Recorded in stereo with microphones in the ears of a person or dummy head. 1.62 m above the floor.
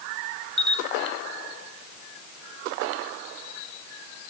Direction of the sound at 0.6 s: 5° left (ahead or behind).